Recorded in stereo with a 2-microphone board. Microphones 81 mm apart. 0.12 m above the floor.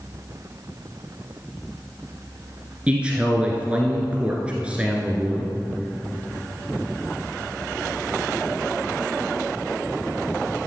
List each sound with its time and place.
2.9 s a man speaking: 15° right (ahead or behind), 1.5 m